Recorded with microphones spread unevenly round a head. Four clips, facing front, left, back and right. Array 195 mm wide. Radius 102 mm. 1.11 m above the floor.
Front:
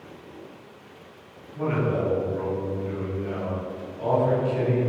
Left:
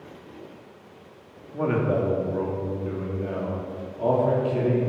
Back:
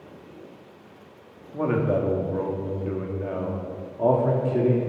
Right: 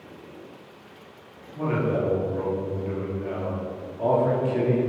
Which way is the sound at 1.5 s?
150° left.